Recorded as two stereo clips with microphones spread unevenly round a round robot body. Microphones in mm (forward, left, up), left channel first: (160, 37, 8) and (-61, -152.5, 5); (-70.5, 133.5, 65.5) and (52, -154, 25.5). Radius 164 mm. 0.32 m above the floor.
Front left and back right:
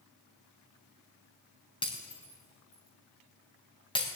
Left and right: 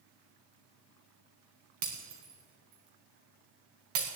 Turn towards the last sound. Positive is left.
turn(degrees=-35)